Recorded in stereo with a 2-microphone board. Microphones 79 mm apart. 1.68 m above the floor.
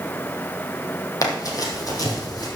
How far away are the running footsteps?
About 2.5 m.